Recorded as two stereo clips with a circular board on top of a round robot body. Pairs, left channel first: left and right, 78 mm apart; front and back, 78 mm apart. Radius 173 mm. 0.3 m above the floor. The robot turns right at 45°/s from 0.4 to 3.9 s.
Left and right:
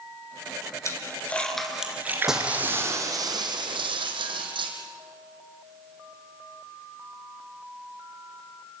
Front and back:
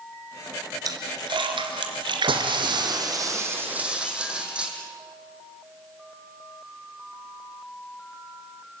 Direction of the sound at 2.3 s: 175° right.